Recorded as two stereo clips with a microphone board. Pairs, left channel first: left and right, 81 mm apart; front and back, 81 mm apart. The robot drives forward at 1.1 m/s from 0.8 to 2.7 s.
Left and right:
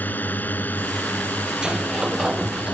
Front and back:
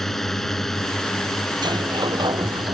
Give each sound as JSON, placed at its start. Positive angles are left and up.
{"t": 0.0, "sound": "a drone", "azimuth_deg": 80}
{"t": 1.6, "sound": "a sliding door", "azimuth_deg": -170}